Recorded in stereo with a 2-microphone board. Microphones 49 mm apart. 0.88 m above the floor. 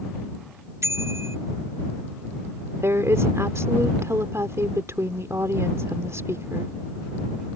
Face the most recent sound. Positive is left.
turn(degrees=-75)  # may be behind; listen again after turning